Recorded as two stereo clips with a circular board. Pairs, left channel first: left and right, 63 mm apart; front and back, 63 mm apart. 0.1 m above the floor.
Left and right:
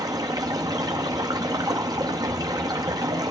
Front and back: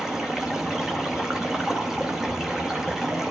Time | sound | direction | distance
0.0 | running water | 100° right | 0.8 m